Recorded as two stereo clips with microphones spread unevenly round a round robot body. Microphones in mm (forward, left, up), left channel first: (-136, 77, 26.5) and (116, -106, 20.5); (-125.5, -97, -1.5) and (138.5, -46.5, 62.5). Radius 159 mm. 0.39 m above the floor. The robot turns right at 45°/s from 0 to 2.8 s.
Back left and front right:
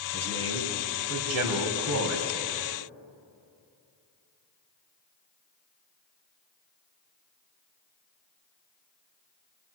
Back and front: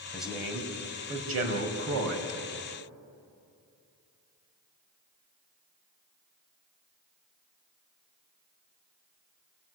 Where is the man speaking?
90° right, 3 m; by 2.3 s 10° left, 3 m.